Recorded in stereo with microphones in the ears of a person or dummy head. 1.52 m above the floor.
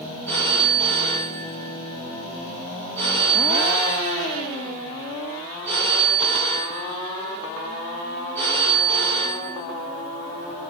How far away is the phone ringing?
About 1.1 m.